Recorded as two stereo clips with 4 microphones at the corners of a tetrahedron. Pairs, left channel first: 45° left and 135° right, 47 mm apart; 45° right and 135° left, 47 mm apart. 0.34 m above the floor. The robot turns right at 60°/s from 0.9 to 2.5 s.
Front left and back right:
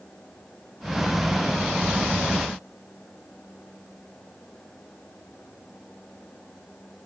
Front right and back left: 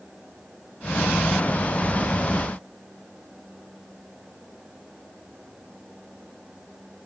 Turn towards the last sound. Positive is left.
No sound to turn to.